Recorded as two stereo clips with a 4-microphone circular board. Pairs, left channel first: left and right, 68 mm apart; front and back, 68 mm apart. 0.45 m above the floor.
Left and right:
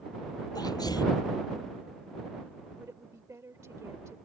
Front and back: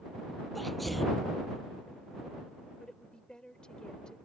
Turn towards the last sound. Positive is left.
turn(degrees=-75)